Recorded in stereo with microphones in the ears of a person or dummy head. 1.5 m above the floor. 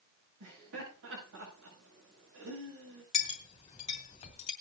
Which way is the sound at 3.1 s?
40° left (ahead or behind).